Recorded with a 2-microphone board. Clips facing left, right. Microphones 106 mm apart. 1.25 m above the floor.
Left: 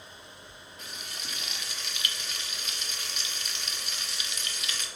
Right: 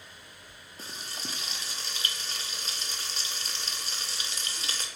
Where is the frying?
35° right (ahead or behind), 0.7 m.